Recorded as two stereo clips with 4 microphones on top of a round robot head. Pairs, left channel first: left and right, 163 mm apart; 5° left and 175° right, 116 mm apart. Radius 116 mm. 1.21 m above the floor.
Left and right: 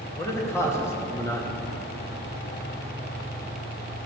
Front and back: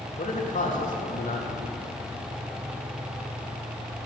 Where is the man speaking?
15° left, 3 m.